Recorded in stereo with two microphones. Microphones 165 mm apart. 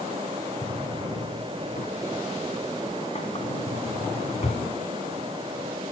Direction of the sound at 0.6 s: 40° left (ahead or behind).